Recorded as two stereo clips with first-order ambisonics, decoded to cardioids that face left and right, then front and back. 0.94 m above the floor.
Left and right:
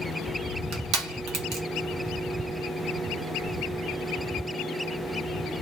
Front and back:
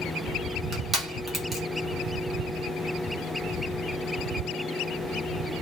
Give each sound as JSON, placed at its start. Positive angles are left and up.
{"t": 0.7, "sound": "crushing", "azimuth_deg": -115, "distance_m": 1.0}